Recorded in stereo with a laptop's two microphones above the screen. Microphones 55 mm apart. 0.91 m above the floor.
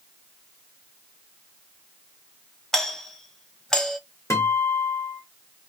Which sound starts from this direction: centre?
A doorbell, at 2.7 s.